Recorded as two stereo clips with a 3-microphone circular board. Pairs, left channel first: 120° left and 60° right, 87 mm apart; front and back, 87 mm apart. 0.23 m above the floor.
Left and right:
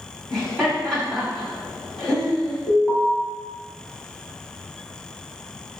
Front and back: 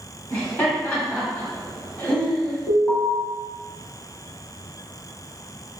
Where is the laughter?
45° left, 1.4 m.